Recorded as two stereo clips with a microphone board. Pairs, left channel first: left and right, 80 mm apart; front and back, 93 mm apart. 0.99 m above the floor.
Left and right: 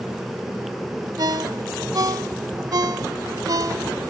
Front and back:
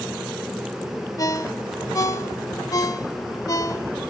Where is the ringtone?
50° right, 1.1 m.